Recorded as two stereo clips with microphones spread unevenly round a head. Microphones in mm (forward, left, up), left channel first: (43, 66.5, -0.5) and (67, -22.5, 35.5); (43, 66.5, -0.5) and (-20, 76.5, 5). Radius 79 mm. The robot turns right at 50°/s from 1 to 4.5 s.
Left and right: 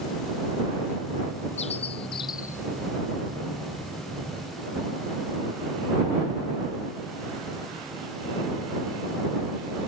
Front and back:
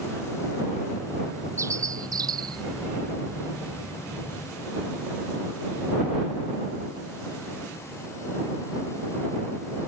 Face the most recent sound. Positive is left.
turn(degrees=-80)